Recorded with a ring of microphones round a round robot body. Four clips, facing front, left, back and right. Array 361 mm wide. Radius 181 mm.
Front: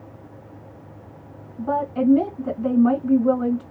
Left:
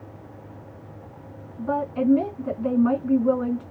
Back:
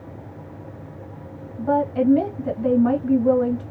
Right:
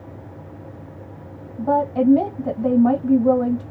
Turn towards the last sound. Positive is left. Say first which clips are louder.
# right 6 dB, back 2 dB
turn(degrees=-110)